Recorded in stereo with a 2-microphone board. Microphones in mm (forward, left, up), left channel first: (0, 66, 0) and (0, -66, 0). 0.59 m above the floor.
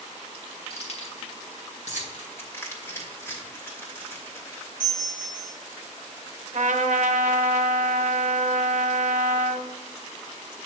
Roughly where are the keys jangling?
Left.